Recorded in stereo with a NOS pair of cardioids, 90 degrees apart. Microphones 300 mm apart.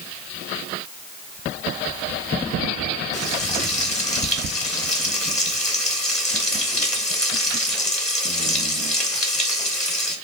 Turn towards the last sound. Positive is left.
turn(degrees=25)